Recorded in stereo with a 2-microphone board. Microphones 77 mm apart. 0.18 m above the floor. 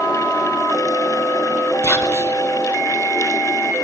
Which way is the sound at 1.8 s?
40° left (ahead or behind).